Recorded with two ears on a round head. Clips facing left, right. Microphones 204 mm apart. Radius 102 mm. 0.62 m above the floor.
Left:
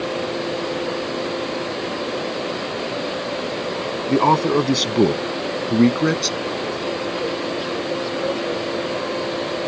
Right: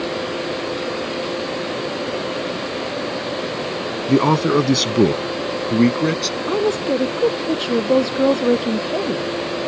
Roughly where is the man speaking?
Centre.